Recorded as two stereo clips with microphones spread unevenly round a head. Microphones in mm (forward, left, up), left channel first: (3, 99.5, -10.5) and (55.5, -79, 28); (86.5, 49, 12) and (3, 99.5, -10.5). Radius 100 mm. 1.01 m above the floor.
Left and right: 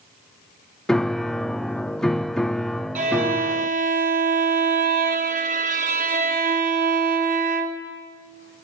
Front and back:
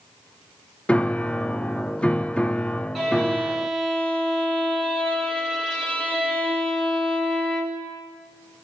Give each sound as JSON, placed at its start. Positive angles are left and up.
{"t": 0.9, "sound": "a piano", "azimuth_deg": 65, "distance_m": 0.6}
{"t": 3.0, "sound": "a violin", "azimuth_deg": -130, "distance_m": 1.4}